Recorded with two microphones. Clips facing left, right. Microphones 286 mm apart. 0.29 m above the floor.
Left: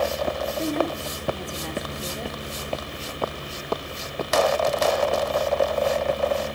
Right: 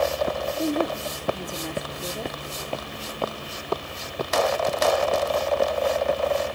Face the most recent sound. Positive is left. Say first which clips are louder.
# right 1 dB
turn(degrees=-5)  # may be behind; listen again after turning